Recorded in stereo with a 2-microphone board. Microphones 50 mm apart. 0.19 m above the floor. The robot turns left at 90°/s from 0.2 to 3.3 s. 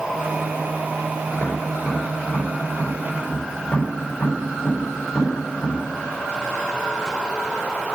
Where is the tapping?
45° right (ahead or behind), 4.5 m; by 5.8 s 45° left (ahead or behind), 4.5 m.